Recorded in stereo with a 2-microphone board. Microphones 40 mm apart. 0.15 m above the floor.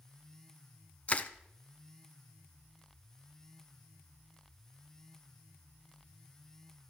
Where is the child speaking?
I don't hear a child speaking.